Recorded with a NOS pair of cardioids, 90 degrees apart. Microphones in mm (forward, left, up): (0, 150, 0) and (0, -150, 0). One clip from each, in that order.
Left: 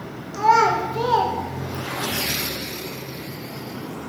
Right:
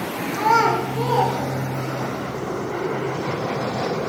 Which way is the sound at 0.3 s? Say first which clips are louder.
Left 1 dB; 15° right.